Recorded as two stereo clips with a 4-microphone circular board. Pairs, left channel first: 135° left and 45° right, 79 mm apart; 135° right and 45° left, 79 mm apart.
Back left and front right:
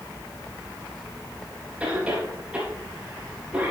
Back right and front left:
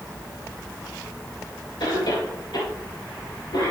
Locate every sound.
1.8 s a cough: 120° right, 4 m